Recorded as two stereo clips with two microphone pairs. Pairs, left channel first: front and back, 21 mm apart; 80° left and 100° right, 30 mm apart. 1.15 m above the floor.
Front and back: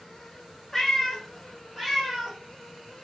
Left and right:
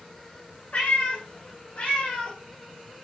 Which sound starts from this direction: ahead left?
A cat meowing, at 0.7 s.